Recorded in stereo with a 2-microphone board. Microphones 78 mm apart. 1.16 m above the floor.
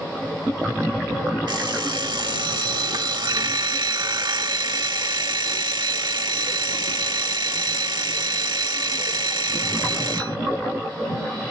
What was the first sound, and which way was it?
An alarm clock, 80° right.